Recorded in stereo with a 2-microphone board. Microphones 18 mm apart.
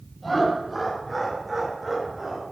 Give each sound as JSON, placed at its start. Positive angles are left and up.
{"t": 0.2, "sound": "laughter", "side_deg": 0, "distance_m": 6.0}